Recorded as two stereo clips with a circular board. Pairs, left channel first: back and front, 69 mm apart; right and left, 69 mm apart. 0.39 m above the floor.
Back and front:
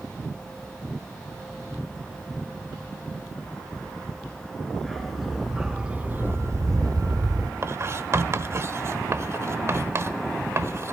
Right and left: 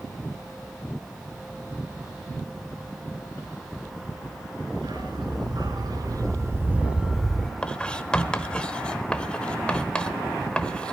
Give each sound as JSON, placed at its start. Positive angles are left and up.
{"t": 4.7, "sound": "a dog barking", "azimuth_deg": 95, "distance_m": 3.0}
{"t": 7.6, "sound": "writing", "azimuth_deg": -20, "distance_m": 0.9}